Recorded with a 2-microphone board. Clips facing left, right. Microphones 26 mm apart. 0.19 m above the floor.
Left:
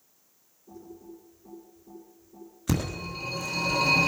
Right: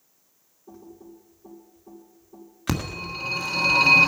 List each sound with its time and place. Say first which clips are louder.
0.7 s typing on a keyboard: even; 85° right, 5 m
2.7 s a phone ringing: right 1 dB; 50° right (ahead or behind), 1.5 m